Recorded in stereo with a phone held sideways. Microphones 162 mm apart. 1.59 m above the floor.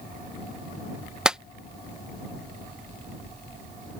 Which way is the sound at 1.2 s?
5° right (ahead or behind).